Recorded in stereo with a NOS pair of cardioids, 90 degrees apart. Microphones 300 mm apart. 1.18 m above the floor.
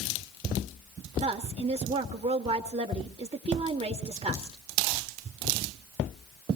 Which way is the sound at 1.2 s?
20° right.